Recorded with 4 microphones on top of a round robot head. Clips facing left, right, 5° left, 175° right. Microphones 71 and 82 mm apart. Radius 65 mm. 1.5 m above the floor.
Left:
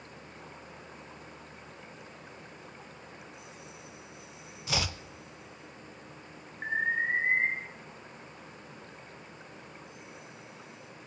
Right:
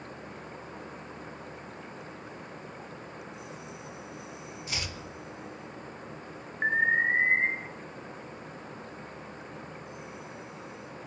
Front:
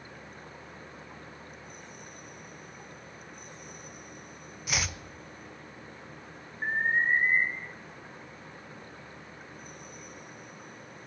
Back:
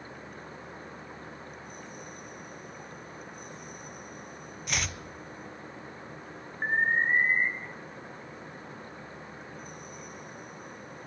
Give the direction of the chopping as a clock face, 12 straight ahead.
9 o'clock.